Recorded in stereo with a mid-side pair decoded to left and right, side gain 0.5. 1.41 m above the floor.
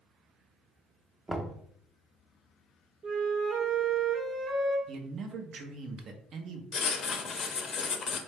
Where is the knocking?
25° right, 0.7 m.